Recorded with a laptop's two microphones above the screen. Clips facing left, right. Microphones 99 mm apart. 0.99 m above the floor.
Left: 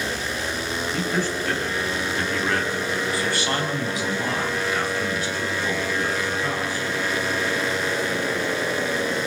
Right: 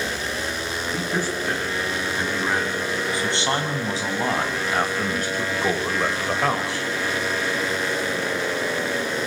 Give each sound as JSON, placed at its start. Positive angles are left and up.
{"t": 0.9, "sound": "a man speaking", "side_deg": -10, "distance_m": 9.0}